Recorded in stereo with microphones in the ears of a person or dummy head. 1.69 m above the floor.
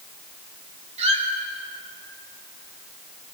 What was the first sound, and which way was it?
A squeak, 40° right (ahead or behind).